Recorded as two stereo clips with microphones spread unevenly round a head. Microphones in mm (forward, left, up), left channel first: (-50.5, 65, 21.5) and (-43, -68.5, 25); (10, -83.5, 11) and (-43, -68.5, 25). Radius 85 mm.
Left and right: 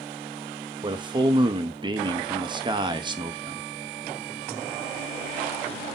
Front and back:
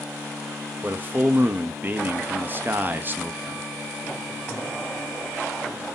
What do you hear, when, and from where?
0.8 s a man speaking: 135° right, 0.6 m